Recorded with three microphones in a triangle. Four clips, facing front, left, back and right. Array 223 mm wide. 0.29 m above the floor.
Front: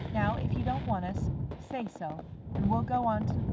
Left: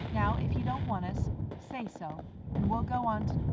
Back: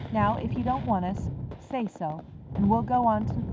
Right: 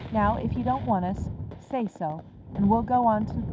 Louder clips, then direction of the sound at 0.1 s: Right 8 dB, back 6 dB; 115° right.